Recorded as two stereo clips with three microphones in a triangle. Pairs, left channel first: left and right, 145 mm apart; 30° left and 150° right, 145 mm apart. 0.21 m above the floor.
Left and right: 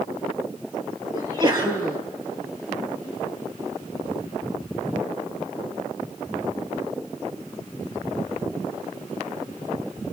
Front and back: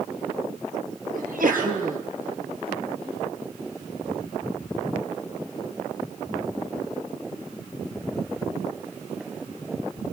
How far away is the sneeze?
About 4.5 m.